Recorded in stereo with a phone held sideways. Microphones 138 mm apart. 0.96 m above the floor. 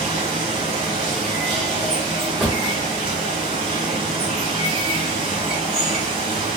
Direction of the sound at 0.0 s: 35° right (ahead or behind).